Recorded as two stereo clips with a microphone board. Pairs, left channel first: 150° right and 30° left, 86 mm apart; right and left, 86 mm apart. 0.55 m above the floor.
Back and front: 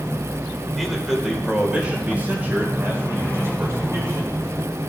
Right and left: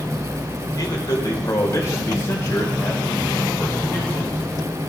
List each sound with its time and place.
0.7 s a man speaking: 65° right, 1.9 m; by 4.4 s 20° right, 3 m